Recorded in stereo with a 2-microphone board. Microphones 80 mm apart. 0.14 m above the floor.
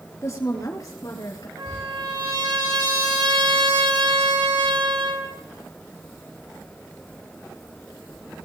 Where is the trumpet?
75° right (ahead or behind), 9.5 m.